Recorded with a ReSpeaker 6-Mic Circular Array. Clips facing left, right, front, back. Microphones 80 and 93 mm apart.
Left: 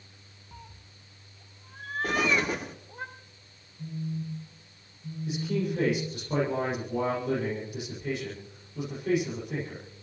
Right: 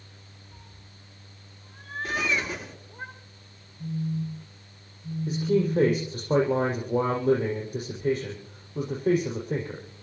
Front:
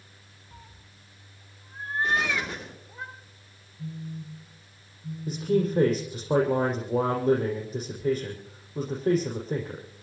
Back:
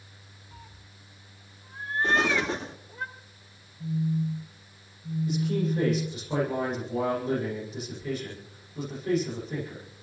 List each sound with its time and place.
0.5 s a cat meowing: 85° left, 1.8 m; by 3.0 s 75° left, 5.5 m
2.0 s an explosion: 120° left, 3 m
3.8 s a phone buzzing: 40° left, 6 m
5.3 s a man speaking: 45° right, 7 m